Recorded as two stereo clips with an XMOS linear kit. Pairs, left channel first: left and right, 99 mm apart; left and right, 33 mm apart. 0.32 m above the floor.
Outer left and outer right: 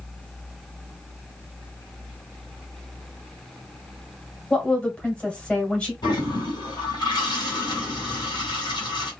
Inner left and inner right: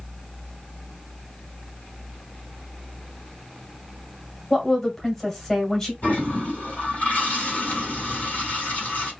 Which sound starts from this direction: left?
A toilet flushing, at 6.0 s.